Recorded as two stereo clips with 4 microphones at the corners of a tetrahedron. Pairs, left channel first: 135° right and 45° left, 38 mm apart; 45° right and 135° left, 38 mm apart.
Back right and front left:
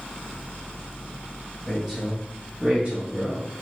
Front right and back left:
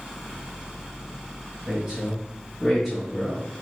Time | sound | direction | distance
1.7 | a woman speaking | 110° left | 1.5 m